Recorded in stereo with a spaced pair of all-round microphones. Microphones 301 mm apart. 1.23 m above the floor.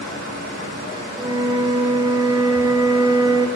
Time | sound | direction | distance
1.2 | a flute | 15° right (ahead or behind) | 0.5 m